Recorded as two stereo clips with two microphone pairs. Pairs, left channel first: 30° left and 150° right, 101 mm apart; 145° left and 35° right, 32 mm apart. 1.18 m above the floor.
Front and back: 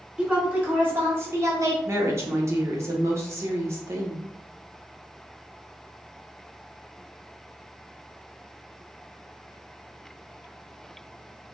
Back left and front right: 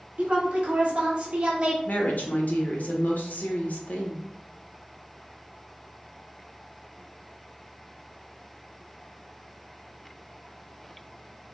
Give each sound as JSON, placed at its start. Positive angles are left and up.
{"t": 0.2, "sound": "a woman speaking", "azimuth_deg": -75, "distance_m": 1.8}
{"t": 1.9, "sound": "a woman speaking", "azimuth_deg": 145, "distance_m": 1.0}